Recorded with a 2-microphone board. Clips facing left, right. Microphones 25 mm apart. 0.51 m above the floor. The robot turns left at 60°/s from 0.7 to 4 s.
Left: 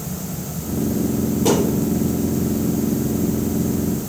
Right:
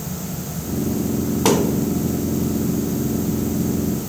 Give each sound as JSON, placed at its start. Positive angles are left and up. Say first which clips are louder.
{"t": 1.4, "sound": "a thud", "louder": "right 1 dB", "side_deg": -70, "distance_m": 1.4}